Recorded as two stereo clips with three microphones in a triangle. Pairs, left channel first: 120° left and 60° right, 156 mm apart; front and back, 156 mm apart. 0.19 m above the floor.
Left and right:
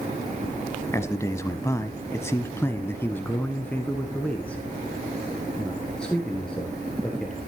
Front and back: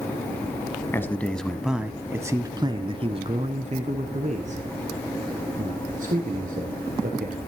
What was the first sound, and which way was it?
A man speaking, 65° left.